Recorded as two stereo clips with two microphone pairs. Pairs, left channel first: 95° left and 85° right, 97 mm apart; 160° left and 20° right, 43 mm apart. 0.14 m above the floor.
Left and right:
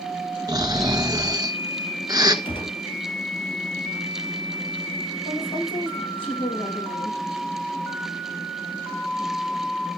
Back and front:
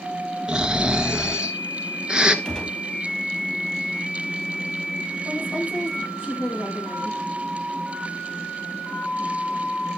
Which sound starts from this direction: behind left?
A woman speaking, at 5.2 s.